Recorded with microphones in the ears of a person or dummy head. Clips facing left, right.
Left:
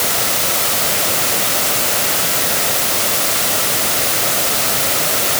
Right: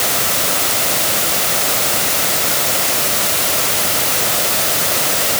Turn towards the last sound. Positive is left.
No sound to turn to.